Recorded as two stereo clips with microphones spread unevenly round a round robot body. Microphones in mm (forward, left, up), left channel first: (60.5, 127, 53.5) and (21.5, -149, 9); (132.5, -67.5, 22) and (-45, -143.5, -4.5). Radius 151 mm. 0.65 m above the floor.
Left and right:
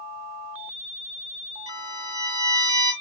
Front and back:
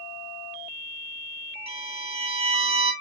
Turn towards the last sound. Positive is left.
turn(degrees=-105)